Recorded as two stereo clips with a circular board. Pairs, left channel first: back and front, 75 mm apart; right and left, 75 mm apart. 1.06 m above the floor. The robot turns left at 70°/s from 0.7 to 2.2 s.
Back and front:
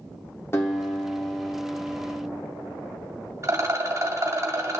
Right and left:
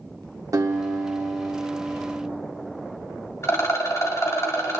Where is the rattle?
40° right, 1.8 m.